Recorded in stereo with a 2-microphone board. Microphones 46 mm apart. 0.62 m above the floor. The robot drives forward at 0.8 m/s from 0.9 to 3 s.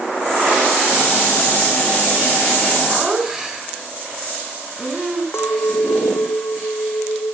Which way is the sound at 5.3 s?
65° left (ahead or behind).